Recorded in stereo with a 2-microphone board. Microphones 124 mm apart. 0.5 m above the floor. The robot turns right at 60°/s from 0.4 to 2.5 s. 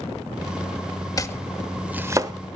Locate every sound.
1.2 s chopping: 30° left (ahead or behind), 0.9 m; by 2.3 s 35° right (ahead or behind), 0.9 m